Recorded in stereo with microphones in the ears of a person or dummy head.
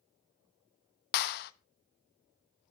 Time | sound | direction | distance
1.1 | a clap | 55° left (ahead or behind) | 0.9 m